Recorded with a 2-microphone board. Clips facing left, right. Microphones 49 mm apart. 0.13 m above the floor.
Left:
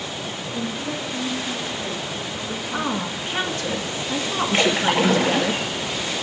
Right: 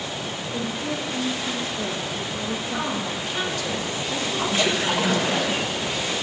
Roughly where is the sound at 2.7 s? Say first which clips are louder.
Left 1 dB; left.